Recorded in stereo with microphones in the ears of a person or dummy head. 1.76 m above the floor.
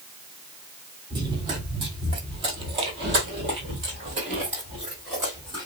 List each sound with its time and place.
1.1 s running footsteps: 20° right (ahead or behind), 2.5 m; by 5.7 s 15° right (ahead or behind), 1.9 m